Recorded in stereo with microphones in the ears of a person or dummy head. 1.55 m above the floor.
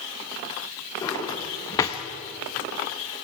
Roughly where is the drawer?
Centre.